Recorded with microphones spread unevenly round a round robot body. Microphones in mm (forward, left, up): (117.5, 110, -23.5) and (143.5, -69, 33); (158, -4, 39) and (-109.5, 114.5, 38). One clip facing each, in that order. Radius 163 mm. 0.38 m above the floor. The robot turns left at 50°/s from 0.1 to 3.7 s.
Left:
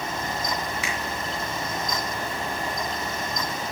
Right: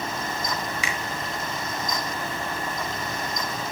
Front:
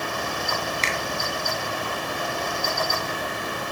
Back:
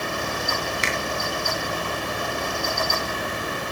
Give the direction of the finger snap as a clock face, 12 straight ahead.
4 o'clock.